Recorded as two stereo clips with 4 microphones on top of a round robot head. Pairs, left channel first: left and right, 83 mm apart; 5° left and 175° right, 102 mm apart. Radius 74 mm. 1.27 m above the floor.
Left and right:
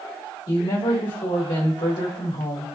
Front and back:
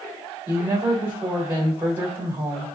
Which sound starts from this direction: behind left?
A woman speaking, at 0.5 s.